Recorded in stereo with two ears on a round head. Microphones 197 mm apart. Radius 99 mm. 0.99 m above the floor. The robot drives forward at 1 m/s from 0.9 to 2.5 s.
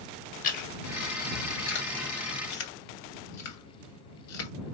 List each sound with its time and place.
0.4 s chewing: 40° left (ahead or behind), 2 m; by 4.5 s 80° left, 1.3 m